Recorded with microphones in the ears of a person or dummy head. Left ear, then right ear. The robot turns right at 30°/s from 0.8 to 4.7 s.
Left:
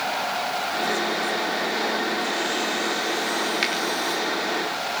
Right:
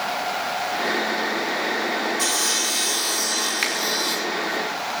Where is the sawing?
95° right, 1.0 m; by 4.4 s 25° right, 1.0 m.